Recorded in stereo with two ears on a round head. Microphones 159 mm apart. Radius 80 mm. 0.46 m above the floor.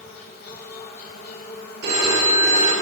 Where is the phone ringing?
65° right (ahead or behind), 5 m.